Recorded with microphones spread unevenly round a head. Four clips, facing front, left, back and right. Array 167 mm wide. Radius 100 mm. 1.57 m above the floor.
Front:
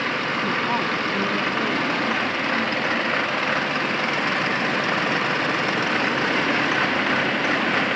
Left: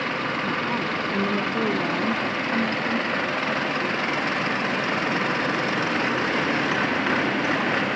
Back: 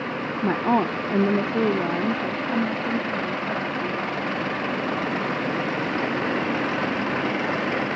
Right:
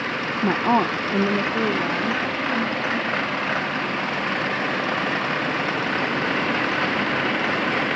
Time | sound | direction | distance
0.4 | a woman speaking | 135° right | ?